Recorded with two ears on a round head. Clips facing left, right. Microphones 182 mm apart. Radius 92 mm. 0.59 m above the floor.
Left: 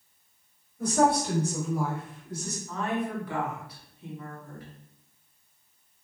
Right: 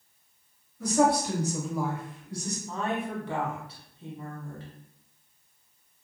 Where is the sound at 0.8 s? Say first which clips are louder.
Even; 45° left (ahead or behind), 1.7 m; by 2.6 s 35° left (ahead or behind), 1.6 m.